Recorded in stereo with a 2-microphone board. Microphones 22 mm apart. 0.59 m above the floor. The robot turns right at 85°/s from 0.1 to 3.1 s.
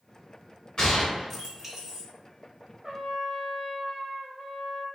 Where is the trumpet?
10° right (ahead or behind), 0.7 m; by 4.9 s 10° left (ahead or behind), 0.7 m.